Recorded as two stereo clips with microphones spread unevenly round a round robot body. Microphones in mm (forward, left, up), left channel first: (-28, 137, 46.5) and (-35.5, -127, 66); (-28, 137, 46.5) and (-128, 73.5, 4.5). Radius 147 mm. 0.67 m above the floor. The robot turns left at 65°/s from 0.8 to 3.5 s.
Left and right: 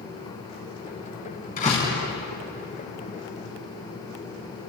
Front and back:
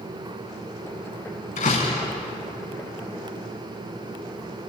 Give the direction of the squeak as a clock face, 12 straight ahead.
No squeak in this recording.